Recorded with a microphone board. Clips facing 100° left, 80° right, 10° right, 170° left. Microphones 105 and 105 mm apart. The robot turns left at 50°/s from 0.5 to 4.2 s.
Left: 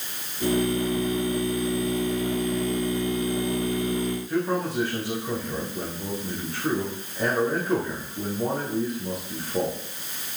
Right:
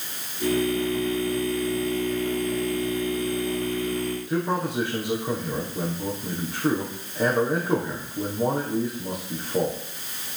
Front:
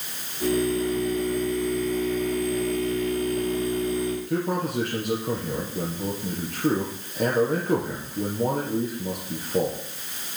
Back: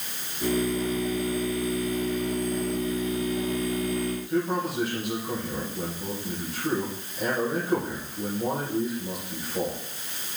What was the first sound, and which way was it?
A man speaking, 5° right.